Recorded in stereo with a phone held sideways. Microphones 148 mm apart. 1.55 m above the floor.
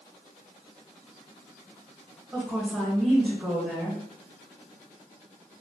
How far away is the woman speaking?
About 1.5 m.